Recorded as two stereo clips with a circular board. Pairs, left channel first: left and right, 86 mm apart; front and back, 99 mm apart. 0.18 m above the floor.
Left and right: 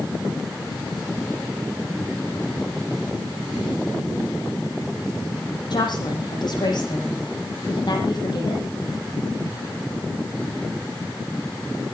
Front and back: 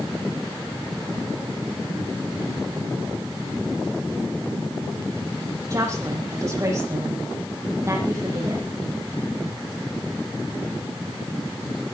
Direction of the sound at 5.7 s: 125° left.